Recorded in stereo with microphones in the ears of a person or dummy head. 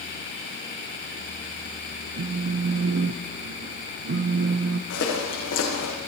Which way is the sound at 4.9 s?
75° left (ahead or behind).